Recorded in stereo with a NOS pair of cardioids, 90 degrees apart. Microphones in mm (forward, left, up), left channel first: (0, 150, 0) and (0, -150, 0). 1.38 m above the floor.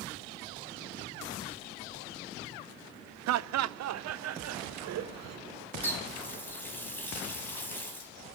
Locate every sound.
3.3 s laughter: 65° right, 0.8 m
5.8 s a running tap: 5° left, 6 m